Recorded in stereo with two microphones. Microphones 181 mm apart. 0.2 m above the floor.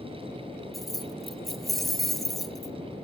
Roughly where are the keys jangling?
Centre.